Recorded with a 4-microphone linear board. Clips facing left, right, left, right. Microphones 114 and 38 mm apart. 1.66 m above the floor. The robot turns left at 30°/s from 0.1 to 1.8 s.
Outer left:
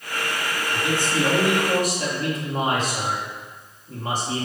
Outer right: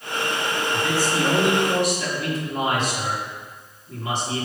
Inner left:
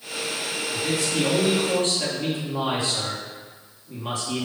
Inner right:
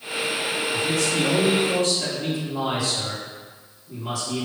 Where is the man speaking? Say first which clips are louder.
Even, inner right 1 dB; 170° left, 3 m; by 4.5 s 135° left, 3 m.